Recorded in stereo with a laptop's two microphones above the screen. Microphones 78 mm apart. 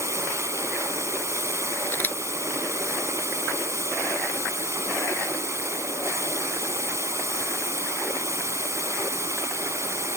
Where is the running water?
40° right (ahead or behind).